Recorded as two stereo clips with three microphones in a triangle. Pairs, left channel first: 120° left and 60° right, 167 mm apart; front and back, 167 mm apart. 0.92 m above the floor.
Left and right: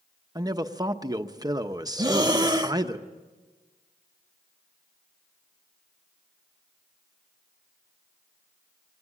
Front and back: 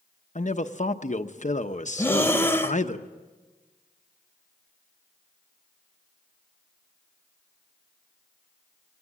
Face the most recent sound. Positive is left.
turn(degrees=-55)